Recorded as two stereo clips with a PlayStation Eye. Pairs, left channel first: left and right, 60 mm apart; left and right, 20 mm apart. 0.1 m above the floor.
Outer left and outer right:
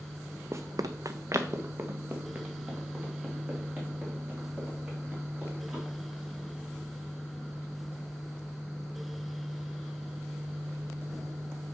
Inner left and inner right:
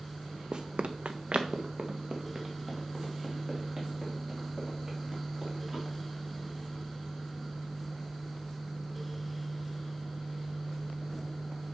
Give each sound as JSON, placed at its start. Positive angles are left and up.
{"t": 0.5, "sound": "running footsteps", "side_deg": -45, "distance_m": 0.5}